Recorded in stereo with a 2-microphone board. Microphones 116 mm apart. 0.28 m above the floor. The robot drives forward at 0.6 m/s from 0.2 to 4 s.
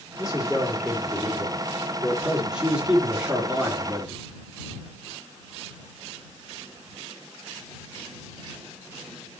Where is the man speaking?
5° right (ahead or behind), 6 m; by 4.2 s 10° right (ahead or behind), 4 m.